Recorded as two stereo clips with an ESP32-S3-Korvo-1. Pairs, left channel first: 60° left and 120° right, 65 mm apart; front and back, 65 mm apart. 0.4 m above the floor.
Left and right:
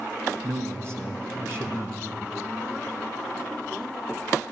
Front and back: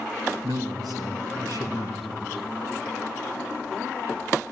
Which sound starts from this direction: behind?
A man speaking, at 0.4 s.